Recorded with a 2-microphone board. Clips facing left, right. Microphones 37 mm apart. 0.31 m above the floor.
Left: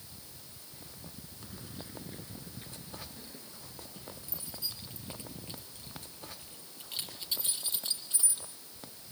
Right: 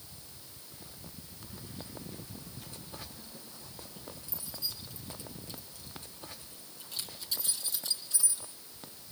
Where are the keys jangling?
25° left (ahead or behind), 2.5 m; by 8.4 s 40° left (ahead or behind), 6 m.